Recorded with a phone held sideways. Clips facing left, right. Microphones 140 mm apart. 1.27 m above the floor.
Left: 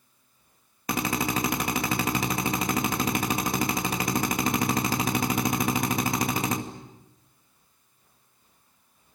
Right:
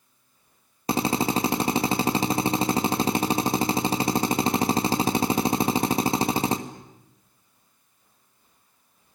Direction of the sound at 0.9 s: 30° right (ahead or behind).